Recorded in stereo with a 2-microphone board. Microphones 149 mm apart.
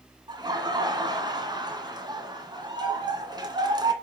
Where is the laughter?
30° right (ahead or behind), 1.9 m.